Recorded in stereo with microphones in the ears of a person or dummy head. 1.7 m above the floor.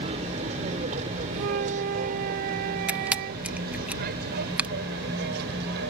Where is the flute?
50° right (ahead or behind).